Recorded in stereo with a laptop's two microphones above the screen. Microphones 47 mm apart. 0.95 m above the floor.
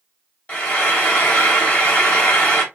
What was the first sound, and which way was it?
Frying, 30° left (ahead or behind).